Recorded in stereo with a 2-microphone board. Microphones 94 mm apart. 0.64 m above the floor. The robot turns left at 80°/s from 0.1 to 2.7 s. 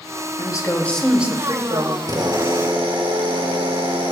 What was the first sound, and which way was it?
A woman speaking, 55° left.